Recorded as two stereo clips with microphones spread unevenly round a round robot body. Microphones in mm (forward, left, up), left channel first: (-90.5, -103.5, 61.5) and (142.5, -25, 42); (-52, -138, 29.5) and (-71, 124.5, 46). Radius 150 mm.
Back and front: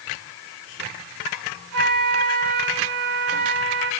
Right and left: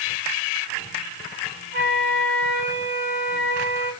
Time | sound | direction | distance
1.7 | a flute | 35° left | 6 m